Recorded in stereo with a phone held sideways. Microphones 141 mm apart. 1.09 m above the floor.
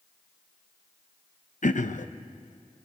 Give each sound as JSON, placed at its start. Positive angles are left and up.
{"t": 1.6, "sound": "throat clearing", "side_deg": 65, "distance_m": 0.8}